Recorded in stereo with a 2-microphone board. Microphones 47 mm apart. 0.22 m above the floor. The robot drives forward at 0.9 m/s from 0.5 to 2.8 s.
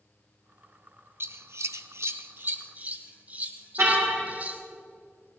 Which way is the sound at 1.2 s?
55° right (ahead or behind).